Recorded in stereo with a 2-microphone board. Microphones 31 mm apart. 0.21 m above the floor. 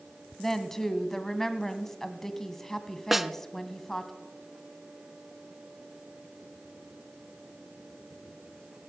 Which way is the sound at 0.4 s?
10° left (ahead or behind).